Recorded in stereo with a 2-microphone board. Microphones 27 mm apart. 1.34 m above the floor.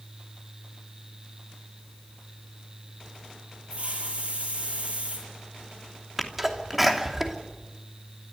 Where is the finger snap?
I don't hear a finger snap.